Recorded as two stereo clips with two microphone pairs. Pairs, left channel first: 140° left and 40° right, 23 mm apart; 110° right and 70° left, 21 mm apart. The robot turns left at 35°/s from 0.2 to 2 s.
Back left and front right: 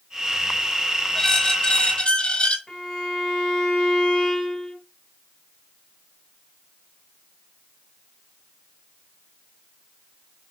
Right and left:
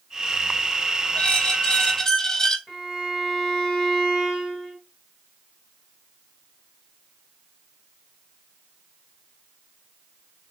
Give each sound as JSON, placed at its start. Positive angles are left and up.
{"t": 1.1, "sound": "a squeak", "azimuth_deg": -150, "distance_m": 0.5}
{"t": 2.7, "sound": "a violin", "azimuth_deg": -165, "distance_m": 2.5}